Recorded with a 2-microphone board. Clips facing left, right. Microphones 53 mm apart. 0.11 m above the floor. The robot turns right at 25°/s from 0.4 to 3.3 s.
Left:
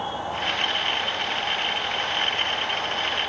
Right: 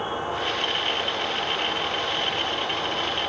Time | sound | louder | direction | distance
0.0 | an insect | right 1 dB | 155° right | 6.5 m